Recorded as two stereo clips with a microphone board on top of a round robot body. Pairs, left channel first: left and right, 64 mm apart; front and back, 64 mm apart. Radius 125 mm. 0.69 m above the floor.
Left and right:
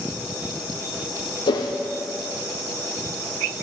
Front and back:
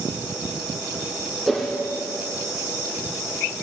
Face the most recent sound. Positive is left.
turn(degrees=90)